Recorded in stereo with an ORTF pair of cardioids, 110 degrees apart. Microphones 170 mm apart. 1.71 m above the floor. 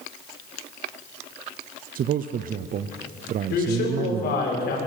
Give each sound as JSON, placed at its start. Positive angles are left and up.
{"t": 1.9, "sound": "a man speaking", "azimuth_deg": -50, "distance_m": 0.8}
{"t": 3.5, "sound": "a man speaking", "azimuth_deg": 65, "distance_m": 7.0}